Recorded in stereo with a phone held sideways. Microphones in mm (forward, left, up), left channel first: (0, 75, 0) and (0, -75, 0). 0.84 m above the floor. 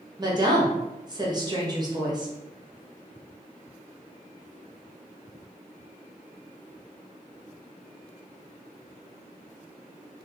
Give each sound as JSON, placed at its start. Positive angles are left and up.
{"t": 0.2, "sound": "a woman speaking", "side_deg": -30, "distance_m": 0.8}